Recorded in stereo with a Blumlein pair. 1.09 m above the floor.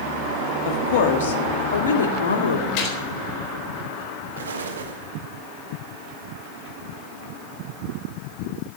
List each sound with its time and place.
0.7 s a woman speaking: 50° left, 1.6 m; by 2.7 s 70° left, 2.5 m
2.8 s a gunshot: 40° left, 4 m
4.4 s an explosion: 65° right, 1.8 m